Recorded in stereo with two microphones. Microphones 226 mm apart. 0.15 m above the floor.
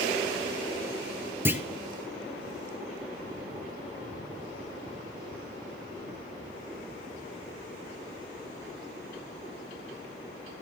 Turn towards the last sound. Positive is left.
turn(degrees=-10)  # may be behind; listen again after turning